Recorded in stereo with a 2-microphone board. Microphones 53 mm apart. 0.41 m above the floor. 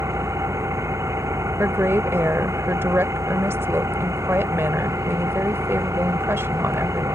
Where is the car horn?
No car horn in this recording.